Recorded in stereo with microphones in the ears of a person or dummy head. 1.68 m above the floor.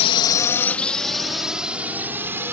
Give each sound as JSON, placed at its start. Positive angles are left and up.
{"t": 0.0, "sound": "a drone", "side_deg": 35}